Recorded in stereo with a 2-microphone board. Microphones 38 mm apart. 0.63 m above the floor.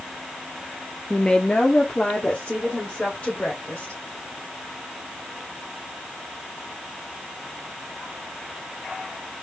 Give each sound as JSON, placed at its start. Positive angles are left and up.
{"t": 1.1, "sound": "a woman speaking", "side_deg": 20, "distance_m": 0.7}